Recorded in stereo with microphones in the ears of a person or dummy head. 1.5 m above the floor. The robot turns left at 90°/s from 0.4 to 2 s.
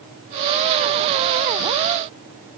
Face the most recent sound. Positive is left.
No sound to turn to.